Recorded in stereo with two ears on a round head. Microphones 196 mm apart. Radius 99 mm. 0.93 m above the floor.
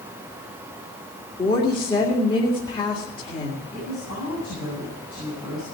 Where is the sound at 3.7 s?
50° left (ahead or behind), 7.5 m.